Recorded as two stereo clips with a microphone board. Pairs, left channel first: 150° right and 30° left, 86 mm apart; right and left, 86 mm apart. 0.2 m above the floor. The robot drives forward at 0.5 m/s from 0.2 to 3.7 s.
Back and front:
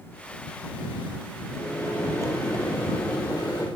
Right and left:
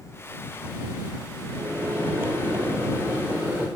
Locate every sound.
1.5 s a microwave: 155° left, 3.5 m; by 3.7 s 160° left, 4.5 m